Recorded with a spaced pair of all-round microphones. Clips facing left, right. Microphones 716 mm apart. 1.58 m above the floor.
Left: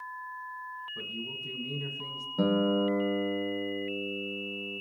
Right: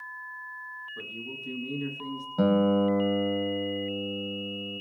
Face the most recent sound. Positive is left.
turn(degrees=-20)  # may be behind; listen again after turning